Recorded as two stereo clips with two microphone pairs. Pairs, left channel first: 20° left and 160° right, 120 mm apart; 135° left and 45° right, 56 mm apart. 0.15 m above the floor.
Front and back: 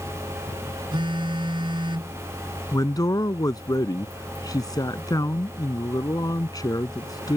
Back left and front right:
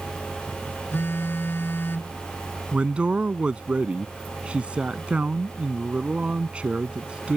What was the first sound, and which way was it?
A phone buzzing, 170° left.